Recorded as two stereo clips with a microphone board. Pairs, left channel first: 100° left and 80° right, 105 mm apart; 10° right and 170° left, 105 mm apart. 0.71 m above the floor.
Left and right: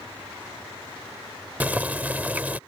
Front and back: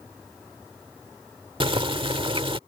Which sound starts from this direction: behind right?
Boiling, at 1.6 s.